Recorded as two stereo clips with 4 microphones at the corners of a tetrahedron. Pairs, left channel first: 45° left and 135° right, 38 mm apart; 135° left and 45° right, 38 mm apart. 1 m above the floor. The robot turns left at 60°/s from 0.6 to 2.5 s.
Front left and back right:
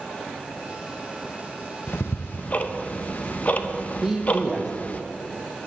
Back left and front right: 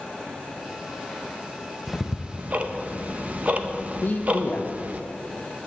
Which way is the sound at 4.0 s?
155° left.